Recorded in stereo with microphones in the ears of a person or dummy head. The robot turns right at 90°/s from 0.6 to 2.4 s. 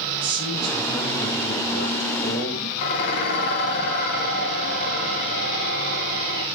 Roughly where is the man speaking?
Ahead right.